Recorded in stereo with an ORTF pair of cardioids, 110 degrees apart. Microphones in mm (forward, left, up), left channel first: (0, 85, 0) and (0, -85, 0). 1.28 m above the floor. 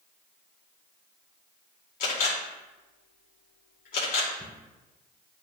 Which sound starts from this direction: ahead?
A cupboard door, at 4.4 s.